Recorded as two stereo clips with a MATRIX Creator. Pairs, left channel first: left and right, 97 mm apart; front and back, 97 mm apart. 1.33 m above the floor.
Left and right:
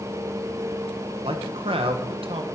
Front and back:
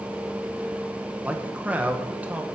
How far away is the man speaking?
About 1.4 m.